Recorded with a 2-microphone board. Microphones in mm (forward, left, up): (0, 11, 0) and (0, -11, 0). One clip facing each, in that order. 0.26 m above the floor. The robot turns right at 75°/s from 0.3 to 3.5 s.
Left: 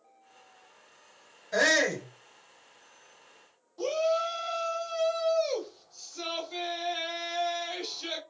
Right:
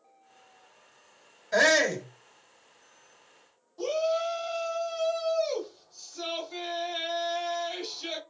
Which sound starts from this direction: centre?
A shout, at 3.8 s.